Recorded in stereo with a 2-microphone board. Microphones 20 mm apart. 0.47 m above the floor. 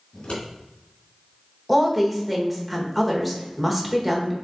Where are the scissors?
85° left, 2 m.